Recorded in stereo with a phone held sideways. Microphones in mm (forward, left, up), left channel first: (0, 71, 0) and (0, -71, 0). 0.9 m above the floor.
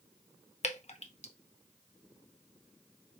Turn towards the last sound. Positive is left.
turn(degrees=50)  # may be behind; listen again after turning